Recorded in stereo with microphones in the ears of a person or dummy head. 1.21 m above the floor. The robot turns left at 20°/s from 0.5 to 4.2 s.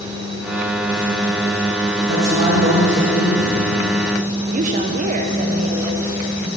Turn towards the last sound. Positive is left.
turn(degrees=-35)  # may be behind; listen again after turning